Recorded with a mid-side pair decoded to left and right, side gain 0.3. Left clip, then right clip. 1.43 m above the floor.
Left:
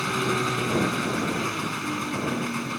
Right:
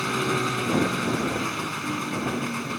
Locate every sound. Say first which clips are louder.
0.0 s an engine running: even; 10° left